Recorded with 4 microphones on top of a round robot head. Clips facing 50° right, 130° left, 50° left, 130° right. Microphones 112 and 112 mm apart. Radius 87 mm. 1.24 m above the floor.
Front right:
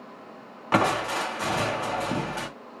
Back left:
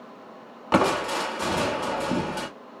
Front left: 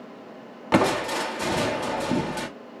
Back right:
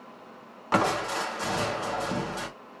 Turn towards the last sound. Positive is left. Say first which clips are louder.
# back left 2 dB, front left 4 dB
turn(degrees=70)